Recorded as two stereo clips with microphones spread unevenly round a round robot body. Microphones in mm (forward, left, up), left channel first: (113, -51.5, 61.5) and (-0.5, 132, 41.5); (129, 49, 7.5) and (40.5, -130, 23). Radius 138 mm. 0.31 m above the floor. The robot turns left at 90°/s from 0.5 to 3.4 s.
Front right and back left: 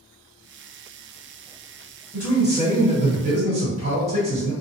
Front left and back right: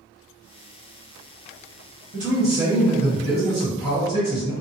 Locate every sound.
2.1 s a man speaking: 130° right, 1.4 m; by 4.5 s 115° left, 1.4 m